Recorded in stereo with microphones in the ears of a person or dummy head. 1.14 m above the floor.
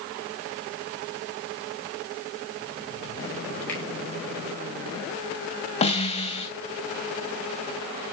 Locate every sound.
3.7 s a finger snap: 10° left (ahead or behind), 8.5 m
5.8 s a snare drum: 30° left (ahead or behind), 3.5 m